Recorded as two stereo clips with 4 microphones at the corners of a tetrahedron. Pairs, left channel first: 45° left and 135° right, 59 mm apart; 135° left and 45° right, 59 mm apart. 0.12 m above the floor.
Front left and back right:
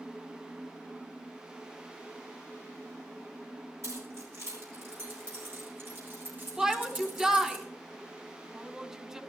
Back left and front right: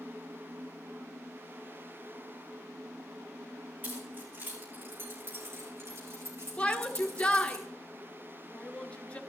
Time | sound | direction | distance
3.8 | keys jangling | 105° right | 5 m
6.6 | a shout | 160° left | 1.2 m